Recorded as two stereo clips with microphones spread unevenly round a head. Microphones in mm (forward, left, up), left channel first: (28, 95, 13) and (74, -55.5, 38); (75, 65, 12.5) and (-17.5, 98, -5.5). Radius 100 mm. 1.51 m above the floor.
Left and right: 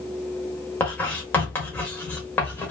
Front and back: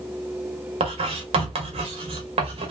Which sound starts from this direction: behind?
Writing, at 0.8 s.